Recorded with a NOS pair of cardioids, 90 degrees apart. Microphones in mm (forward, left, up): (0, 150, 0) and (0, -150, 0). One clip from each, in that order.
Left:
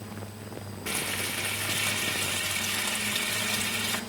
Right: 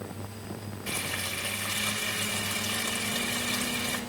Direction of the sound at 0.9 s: 50° left.